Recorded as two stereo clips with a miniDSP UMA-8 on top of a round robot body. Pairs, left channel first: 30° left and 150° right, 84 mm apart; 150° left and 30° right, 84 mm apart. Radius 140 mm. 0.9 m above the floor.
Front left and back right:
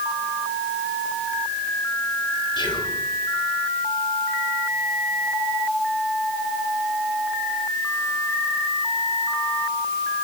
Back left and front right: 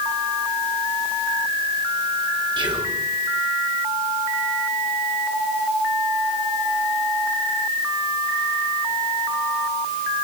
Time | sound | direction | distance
2.6 | whispering | straight ahead | 5 m